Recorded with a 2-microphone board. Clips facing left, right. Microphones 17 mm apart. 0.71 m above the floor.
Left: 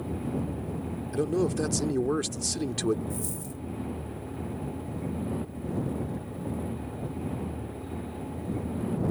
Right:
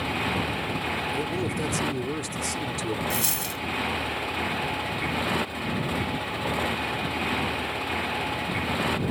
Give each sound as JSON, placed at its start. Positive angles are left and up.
{"t": 0.0, "sound": "a motorcycle", "side_deg": -60}
{"t": 1.1, "sound": "a man speaking", "side_deg": 20}
{"t": 3.1, "sound": "a dropped coin", "side_deg": -75}